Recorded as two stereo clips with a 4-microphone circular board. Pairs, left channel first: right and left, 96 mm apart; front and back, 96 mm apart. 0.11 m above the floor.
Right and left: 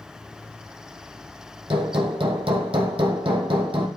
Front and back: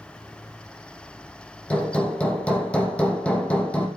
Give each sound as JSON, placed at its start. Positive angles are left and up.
{"t": 1.7, "sound": "hammering", "azimuth_deg": 75, "distance_m": 3.5}